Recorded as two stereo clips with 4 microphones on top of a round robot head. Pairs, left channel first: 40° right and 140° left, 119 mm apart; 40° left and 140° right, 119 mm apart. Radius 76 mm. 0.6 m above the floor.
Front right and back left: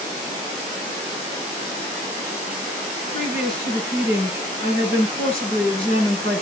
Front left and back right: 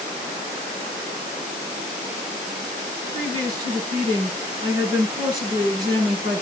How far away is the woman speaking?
About 7 m.